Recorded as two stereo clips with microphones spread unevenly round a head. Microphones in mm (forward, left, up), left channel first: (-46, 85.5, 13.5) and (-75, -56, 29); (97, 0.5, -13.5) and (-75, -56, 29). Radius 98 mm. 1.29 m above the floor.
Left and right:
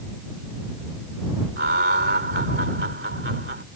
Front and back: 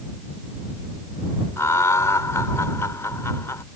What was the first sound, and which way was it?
Laughter, 60° right.